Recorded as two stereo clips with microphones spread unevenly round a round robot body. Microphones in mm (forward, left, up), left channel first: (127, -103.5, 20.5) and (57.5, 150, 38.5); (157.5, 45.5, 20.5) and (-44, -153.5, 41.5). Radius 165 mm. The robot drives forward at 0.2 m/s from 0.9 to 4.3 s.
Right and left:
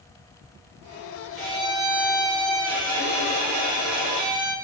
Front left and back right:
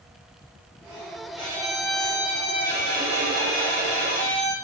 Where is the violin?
115° left, 2 m; by 4.5 s 130° left, 2.5 m.